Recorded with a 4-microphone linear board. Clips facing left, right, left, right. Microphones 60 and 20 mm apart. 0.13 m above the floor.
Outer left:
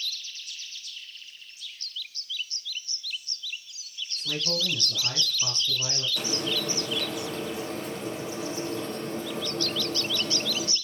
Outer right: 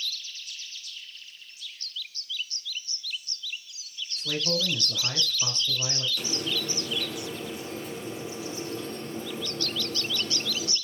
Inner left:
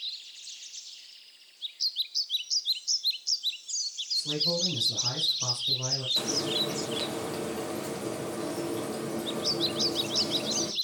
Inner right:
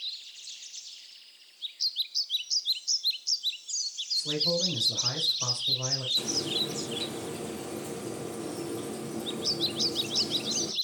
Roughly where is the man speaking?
Centre.